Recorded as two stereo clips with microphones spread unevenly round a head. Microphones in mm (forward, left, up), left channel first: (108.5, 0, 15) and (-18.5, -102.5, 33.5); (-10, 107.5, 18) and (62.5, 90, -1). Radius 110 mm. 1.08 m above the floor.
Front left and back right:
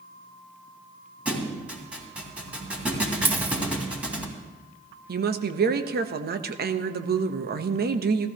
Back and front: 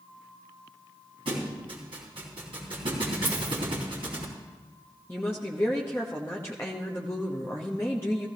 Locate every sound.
1.2 s a thud: 60° right, 3 m
3.2 s a dropped coin: 85° right, 0.6 m
5.1 s a woman speaking: 115° right, 1.0 m